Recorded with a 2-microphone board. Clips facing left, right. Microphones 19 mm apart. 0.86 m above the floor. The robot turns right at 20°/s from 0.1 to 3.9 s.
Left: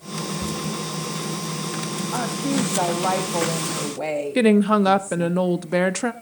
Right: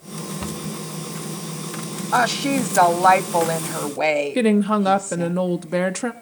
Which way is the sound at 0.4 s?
65° right (ahead or behind).